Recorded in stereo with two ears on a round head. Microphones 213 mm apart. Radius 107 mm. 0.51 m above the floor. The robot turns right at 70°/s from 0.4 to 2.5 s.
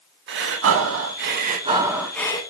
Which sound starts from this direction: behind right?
Breathing, at 0.3 s.